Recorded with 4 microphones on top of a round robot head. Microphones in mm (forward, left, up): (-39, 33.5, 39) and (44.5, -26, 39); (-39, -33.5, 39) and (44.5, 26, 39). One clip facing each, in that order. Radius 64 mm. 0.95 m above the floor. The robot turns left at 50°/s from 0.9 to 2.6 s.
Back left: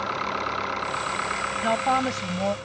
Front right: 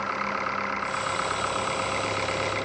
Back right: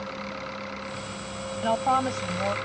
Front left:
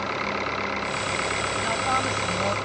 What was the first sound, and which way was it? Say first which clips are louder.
An engine running: back left 1 dB, front left 7 dB; 70° left.